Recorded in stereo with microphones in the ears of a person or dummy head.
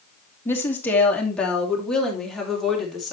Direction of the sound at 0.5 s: 10° left (ahead or behind).